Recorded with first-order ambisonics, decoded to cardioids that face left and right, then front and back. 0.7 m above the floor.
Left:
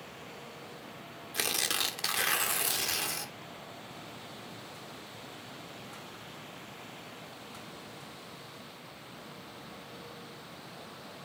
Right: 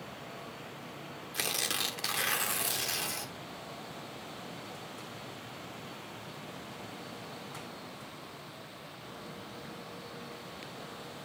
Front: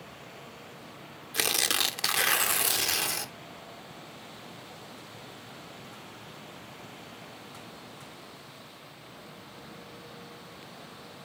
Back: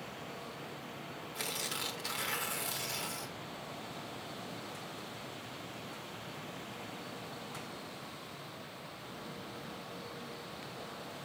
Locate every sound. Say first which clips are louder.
1.3 s tearing paper: left 2 dB, front 12 dB; 5° left, 1.2 m